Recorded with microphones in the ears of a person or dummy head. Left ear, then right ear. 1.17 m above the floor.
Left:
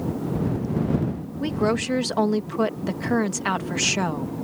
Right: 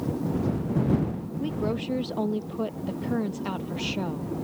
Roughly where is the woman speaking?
Left.